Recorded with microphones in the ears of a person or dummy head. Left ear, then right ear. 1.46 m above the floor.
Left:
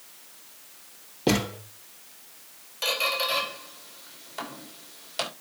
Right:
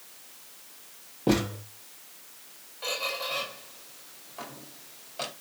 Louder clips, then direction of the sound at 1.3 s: Left 1 dB; 70° left (ahead or behind).